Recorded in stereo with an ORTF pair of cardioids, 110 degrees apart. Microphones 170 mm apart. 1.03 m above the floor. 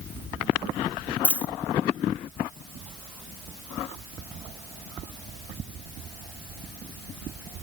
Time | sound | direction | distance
1.2 | a dropped coin | 10° left | 1.2 m